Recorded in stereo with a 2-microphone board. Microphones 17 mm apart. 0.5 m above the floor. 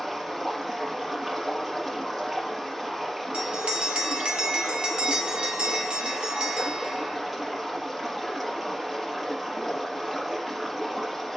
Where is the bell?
70° right (ahead or behind), 1.5 m.